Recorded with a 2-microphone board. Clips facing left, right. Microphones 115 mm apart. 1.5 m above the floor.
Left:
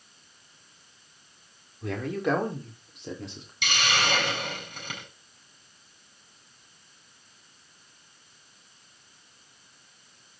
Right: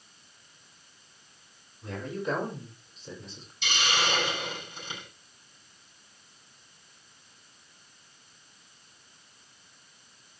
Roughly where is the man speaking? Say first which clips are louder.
Left 5 dB; left.